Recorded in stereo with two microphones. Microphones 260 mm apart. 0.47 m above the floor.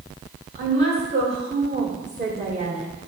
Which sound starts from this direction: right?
A woman speaking, at 0.6 s.